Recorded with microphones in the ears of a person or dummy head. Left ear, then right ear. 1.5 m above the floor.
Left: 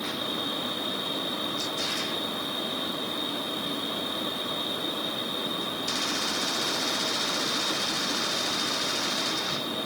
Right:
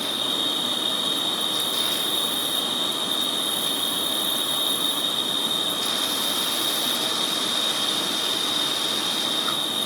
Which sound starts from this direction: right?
An insect, at 0.0 s.